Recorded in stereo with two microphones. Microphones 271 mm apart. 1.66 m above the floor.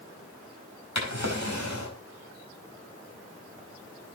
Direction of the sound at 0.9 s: 75° left (ahead or behind).